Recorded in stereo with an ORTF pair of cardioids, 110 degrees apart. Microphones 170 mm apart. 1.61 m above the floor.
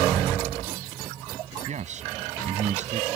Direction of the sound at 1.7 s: 45° right.